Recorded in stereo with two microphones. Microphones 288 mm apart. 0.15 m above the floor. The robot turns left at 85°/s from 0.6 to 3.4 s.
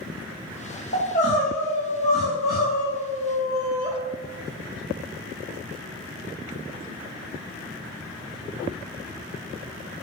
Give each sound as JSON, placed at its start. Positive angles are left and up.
{"t": 0.9, "sound": "crying", "azimuth_deg": 45, "distance_m": 3.0}